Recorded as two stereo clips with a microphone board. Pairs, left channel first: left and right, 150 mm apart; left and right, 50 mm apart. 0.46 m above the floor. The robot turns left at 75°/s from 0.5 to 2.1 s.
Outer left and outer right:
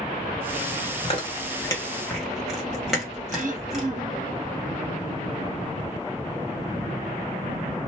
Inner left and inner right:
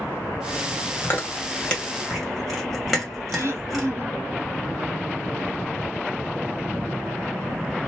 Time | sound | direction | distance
1.0 | chewing | 40° left (ahead or behind) | 1.8 m
3.3 | throat clearing | 60° right (ahead or behind) | 0.8 m